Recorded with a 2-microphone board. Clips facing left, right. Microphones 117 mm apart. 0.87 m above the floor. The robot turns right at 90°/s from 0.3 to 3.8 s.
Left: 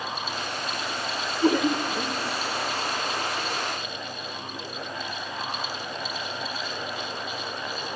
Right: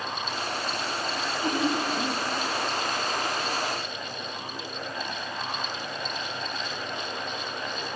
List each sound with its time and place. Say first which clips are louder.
1.1 s laughter: left 7 dB; 50° left (ahead or behind), 2.5 m; by 2.2 s 35° left (ahead or behind), 2.5 m